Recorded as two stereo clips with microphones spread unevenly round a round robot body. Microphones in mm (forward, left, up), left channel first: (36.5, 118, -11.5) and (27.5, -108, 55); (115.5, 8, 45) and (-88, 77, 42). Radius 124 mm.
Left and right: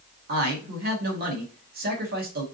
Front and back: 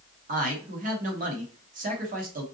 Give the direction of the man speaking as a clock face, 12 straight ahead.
5 o'clock.